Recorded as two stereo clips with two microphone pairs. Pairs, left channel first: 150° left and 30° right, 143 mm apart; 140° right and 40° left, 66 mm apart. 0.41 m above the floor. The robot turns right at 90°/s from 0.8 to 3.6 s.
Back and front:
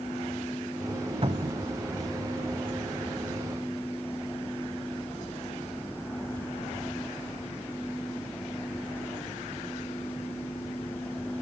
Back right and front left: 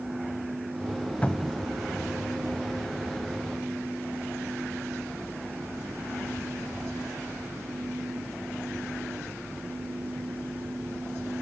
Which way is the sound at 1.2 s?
75° right.